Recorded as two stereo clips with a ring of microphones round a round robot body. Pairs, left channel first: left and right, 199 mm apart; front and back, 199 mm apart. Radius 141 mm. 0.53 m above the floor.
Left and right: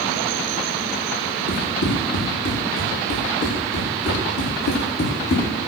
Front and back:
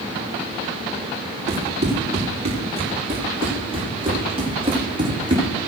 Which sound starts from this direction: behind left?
Running footsteps, at 1.5 s.